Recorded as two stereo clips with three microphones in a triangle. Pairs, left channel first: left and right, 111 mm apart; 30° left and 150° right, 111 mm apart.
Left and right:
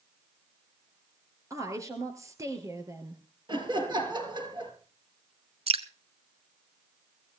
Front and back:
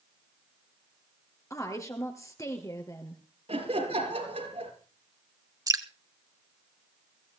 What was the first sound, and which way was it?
A woman speaking, 30° right.